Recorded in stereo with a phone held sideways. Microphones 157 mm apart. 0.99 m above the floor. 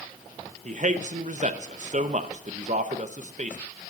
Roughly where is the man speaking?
Right.